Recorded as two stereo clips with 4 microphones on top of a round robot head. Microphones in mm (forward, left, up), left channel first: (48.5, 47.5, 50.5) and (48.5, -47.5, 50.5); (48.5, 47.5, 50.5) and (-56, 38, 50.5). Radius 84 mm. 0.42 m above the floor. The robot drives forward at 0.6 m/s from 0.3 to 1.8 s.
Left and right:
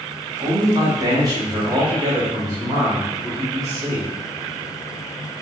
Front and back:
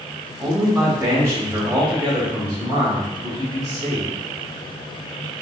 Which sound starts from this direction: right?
A man speaking, at 0.4 s.